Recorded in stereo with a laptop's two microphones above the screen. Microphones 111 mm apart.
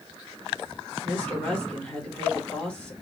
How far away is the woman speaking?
About 1.6 m.